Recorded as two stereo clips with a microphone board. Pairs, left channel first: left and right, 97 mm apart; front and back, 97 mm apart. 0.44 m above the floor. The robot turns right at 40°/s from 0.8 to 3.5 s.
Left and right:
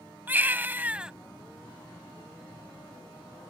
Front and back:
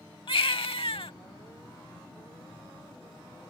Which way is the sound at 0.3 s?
20° right.